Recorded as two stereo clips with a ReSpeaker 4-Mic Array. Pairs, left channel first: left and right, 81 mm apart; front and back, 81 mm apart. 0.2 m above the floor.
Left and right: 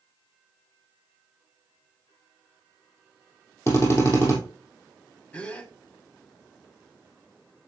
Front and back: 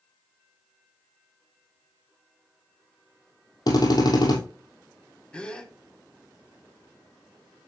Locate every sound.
3.7 s a drill: 35° left, 3 m
5.3 s a gasp: 50° left, 1.3 m